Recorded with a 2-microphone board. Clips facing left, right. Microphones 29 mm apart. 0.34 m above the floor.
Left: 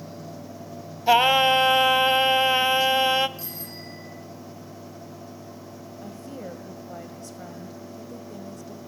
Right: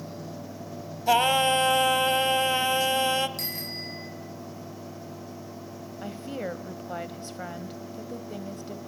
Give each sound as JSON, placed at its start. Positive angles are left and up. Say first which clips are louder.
{"t": 1.1, "sound": "singing", "louder": "left 4 dB", "side_deg": 25, "distance_m": 0.7}
{"t": 3.4, "sound": "a bicycle bell", "louder": "right 4 dB", "side_deg": -75, "distance_m": 5.0}
{"t": 6.0, "sound": "a woman speaking", "louder": "right 5 dB", "side_deg": -45, "distance_m": 1.5}